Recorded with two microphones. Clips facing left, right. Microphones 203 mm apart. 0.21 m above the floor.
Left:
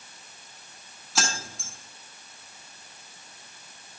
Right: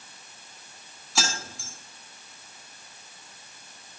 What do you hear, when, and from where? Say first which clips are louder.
1.1 s keys jangling: even; centre (ahead or behind), 1.1 m